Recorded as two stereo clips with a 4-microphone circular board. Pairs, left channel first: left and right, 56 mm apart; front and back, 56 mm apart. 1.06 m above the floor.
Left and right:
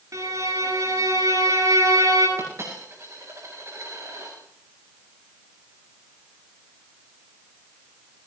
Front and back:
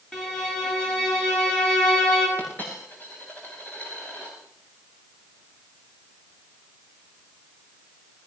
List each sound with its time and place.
0.1 s a violin: 80° right, 9 m
2.4 s a dropped coin: 60° right, 8.5 m